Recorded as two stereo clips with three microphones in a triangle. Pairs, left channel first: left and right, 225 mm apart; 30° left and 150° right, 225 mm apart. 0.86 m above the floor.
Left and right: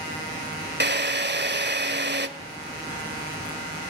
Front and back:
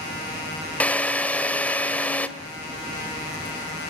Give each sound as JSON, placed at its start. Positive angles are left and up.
{"t": 0.8, "sound": "a drill", "azimuth_deg": -55, "distance_m": 1.5}